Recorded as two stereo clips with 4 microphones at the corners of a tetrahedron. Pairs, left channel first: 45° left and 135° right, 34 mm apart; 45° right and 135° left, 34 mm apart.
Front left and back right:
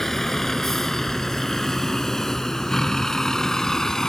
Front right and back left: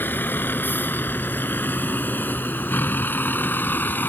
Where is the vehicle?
35° right; by 4.1 s 30° right.